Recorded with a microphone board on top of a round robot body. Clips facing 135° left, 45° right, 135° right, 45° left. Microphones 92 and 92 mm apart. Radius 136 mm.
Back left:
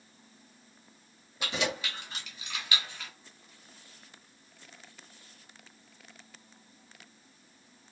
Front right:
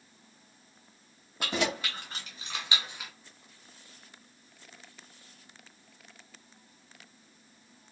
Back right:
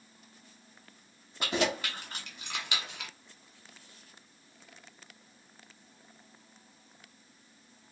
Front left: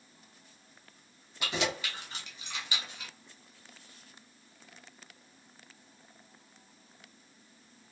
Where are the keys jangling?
90° right, 1.5 m; by 3.1 s 130° right, 0.6 m.